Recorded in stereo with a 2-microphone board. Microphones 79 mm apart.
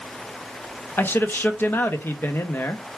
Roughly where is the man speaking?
Left.